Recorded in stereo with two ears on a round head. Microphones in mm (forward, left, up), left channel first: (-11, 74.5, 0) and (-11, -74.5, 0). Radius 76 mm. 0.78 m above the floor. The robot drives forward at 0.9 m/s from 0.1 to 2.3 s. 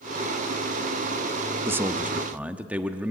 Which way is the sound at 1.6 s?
15° right (ahead or behind).